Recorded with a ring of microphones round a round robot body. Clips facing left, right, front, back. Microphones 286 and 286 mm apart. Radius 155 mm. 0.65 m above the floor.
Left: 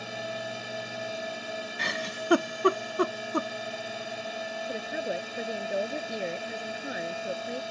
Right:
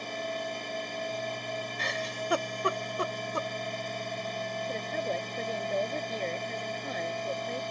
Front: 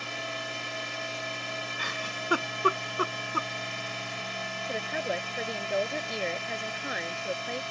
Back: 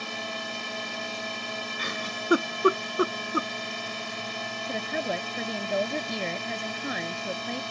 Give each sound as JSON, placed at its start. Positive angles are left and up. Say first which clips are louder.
{"t": 0.0, "sound": "a drone", "louder": "right 1 dB, back 2 dB", "azimuth_deg": 170}
{"t": 1.8, "sound": "a giggle", "louder": "even, back 3 dB", "azimuth_deg": 115}
{"t": 4.7, "sound": "a woman speaking", "louder": "left 2 dB, back 2 dB", "azimuth_deg": 170}